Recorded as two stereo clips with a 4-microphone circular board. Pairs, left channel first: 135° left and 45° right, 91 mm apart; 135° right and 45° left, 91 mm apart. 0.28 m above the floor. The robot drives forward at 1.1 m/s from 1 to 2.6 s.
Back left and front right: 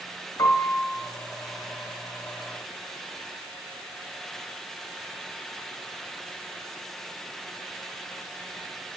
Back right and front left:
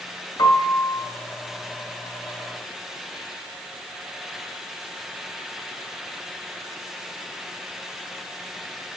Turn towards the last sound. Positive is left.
turn(degrees=180)